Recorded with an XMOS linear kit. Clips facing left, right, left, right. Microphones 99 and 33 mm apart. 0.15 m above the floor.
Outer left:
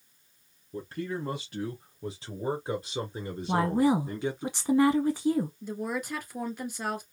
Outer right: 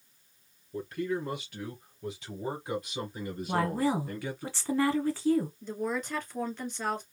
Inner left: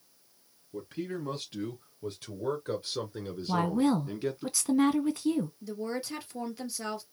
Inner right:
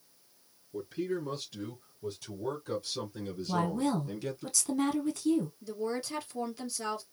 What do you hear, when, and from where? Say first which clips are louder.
0.7 s a man speaking: outer right 2 dB, inner right 2 dB; 35° left (ahead or behind), 3.5 m; by 4.5 s 20° left (ahead or behind), 1.6 m
3.5 s a woman speaking: outer left 4 dB, inner left 4 dB; 15° left (ahead or behind), 1.1 m
5.6 s a woman speaking: even, even; 10° left (ahead or behind), 2.5 m